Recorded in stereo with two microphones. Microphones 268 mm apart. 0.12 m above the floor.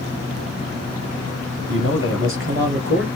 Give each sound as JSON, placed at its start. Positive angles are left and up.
{"t": 1.7, "sound": "a man speaking", "side_deg": -50, "distance_m": 2.5}